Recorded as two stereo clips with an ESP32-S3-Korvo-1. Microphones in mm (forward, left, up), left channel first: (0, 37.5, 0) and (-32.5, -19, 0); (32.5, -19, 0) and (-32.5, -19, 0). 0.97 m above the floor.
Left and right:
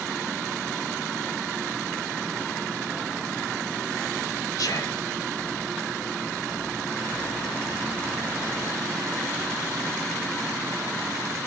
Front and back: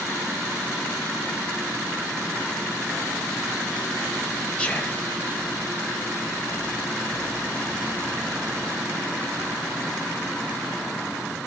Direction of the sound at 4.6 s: 70° left.